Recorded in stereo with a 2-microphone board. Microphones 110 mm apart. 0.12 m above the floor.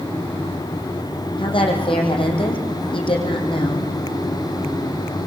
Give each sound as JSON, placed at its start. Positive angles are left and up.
{"t": 1.4, "sound": "a woman speaking", "side_deg": 50, "distance_m": 6.0}